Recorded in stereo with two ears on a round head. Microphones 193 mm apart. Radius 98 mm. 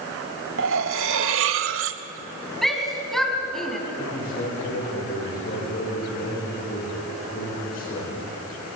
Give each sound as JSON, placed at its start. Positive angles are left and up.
{"t": 0.6, "sound": "cutlery clinking", "side_deg": -65, "distance_m": 1.0}
{"t": 2.6, "sound": "a shout", "side_deg": 0, "distance_m": 3.5}
{"t": 4.0, "sound": "a man speaking", "side_deg": 45, "distance_m": 8.5}